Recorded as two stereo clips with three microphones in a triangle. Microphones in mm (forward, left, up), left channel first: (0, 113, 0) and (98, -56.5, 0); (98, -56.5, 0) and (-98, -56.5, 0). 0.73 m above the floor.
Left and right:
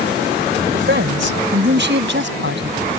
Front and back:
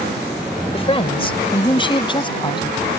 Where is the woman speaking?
60° right; by 2.8 s 65° right.